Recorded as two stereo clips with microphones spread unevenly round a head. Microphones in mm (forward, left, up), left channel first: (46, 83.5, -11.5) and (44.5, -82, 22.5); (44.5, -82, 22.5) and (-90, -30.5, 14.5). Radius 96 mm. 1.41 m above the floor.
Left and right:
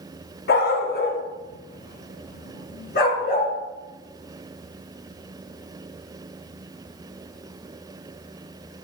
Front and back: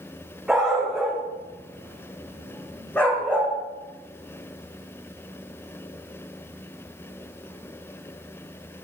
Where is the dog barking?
70° left, 3 m; by 3.5 s 60° left, 4.5 m.